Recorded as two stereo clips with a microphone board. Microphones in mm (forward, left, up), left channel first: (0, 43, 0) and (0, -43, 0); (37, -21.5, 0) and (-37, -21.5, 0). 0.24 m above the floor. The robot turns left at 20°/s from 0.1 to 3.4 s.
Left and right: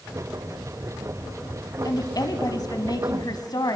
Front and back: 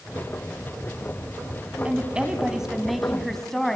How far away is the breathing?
I don't hear breathing.